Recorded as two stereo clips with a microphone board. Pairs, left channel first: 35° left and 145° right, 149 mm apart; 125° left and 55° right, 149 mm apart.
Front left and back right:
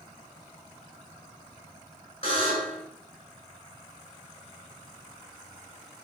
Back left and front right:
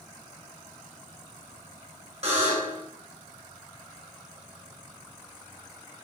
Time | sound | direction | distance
2.2 | a buzzer | 15° right | 7 m